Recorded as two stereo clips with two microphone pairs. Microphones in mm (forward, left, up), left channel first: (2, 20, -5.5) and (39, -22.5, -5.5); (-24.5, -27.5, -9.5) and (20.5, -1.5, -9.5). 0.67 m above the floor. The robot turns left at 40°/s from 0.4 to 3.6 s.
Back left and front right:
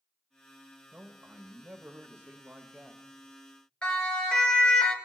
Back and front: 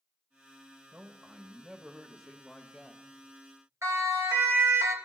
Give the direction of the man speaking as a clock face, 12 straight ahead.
1 o'clock.